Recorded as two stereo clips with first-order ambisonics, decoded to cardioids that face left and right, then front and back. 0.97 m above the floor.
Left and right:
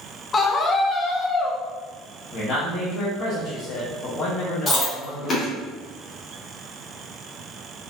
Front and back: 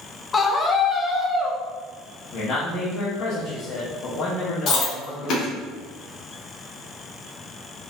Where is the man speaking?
40° left, 1.0 m.